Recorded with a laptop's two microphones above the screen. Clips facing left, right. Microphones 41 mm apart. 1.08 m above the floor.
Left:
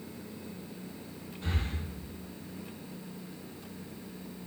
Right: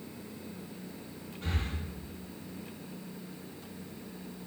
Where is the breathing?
75° right (ahead or behind), 1.7 m.